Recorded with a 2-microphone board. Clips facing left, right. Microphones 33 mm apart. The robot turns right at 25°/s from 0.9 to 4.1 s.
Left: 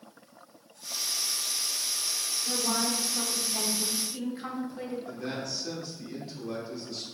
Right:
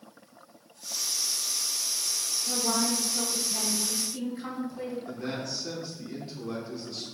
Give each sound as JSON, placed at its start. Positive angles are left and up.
{"t": 2.5, "sound": "a woman speaking", "azimuth_deg": 5, "distance_m": 0.9}
{"t": 5.1, "sound": "a man speaking", "side_deg": -10, "distance_m": 0.9}